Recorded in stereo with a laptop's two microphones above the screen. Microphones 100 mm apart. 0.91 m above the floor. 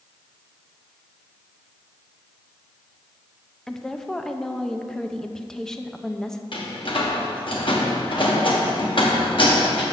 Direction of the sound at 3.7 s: 5° left (ahead or behind).